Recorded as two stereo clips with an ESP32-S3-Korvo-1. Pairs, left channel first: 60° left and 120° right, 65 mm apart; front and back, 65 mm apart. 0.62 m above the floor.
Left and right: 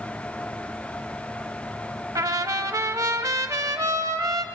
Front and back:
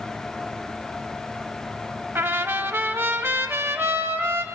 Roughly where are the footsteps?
No footsteps in this recording.